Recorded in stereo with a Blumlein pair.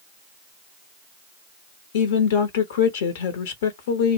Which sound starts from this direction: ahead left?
A woman speaking, at 1.9 s.